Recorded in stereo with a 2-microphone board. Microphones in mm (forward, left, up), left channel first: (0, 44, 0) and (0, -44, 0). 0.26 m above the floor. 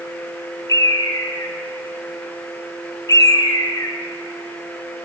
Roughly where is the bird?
Left.